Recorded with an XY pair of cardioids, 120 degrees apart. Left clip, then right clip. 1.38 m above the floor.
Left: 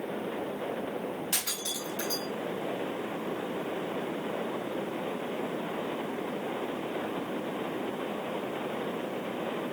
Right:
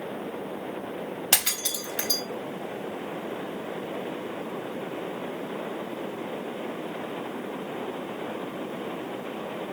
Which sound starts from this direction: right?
Breaking glass, at 1.3 s.